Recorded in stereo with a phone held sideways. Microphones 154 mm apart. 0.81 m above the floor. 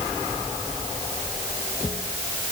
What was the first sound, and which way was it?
Only background noise.